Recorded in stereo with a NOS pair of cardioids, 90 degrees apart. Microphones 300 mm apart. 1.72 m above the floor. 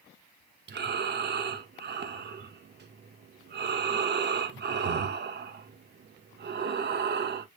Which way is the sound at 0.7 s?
35° right.